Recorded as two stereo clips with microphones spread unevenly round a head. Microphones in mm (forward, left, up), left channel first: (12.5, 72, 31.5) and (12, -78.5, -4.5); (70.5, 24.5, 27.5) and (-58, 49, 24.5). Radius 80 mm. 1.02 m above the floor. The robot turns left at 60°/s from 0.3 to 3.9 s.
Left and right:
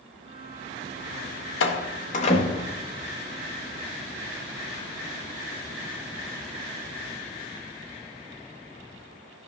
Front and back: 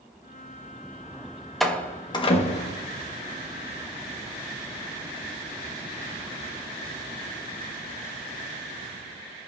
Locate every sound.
1.6 s a door slam: 80° left, 1.1 m; by 2.8 s 5° left, 1.1 m